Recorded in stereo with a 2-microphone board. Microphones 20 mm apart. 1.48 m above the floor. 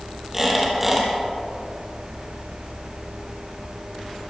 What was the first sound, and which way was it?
A squeak, 10° right (ahead or behind).